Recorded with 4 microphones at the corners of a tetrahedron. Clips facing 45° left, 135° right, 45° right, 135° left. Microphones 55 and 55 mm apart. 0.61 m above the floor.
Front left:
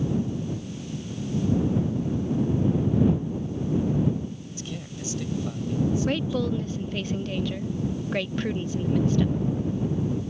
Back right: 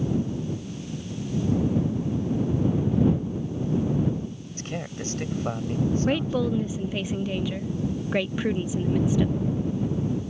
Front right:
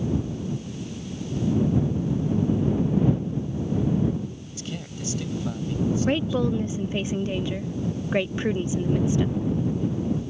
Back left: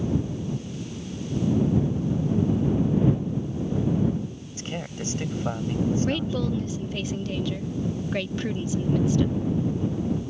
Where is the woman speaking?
70° right.